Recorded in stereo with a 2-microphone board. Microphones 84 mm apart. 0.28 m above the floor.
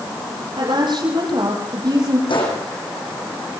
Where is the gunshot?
80° left, 7.5 m.